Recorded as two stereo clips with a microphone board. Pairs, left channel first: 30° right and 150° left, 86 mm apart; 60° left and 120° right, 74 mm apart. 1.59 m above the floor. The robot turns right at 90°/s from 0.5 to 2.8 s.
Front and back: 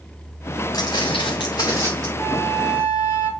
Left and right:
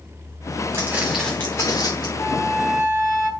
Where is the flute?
95° left, 4.5 m; by 3.3 s 150° left, 4.5 m.